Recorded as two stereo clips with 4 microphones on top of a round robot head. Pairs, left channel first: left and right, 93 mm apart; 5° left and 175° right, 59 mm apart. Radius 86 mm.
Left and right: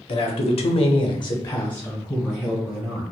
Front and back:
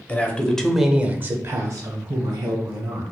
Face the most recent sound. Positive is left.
turn(degrees=-175)